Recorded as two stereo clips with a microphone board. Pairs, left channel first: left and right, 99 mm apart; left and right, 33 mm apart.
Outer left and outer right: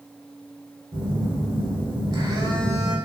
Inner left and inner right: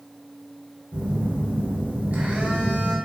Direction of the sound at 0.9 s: 50° right (ahead or behind).